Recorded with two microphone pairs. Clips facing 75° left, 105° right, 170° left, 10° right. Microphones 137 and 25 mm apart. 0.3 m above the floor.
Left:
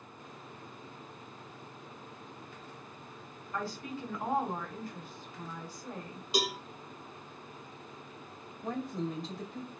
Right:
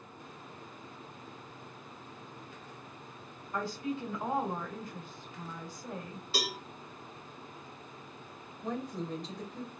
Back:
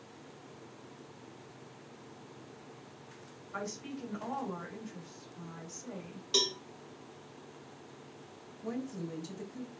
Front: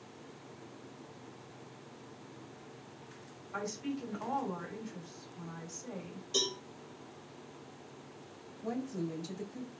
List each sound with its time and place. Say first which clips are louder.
3.5 s a woman speaking: right 3 dB, front 2 dB; 75° right, 1.5 m
6.3 s a cowbell: left 4 dB, back 3 dB; 150° left, 0.7 m
8.6 s a woman speaking: left 1 dB, front 2 dB; 5° right, 1.1 m